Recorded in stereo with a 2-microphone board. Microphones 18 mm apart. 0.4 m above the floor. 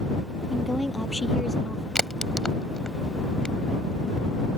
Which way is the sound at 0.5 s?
20° right (ahead or behind).